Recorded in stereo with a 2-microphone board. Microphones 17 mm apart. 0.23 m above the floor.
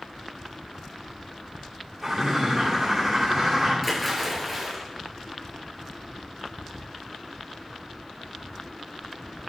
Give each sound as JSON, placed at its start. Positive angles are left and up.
{"t": 2.0, "sound": "a bird", "side_deg": -25, "distance_m": 7.5}
{"t": 3.8, "sound": "a splash", "side_deg": -5, "distance_m": 5.0}